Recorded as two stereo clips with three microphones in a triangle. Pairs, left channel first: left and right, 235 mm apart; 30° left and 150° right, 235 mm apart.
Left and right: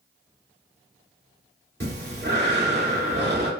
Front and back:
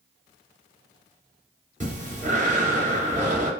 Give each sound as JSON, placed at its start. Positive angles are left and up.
{"t": 1.8, "sound": "breathing", "azimuth_deg": -105, "distance_m": 0.7}